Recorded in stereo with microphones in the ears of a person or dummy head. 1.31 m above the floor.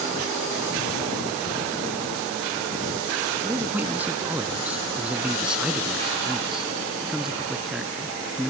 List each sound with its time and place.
3.4 s a man speaking: 10° right (ahead or behind); by 8.5 s centre (ahead or behind)